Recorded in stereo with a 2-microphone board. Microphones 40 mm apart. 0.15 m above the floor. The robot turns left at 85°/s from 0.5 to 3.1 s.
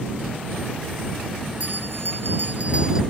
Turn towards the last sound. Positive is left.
turn(degrees=-175)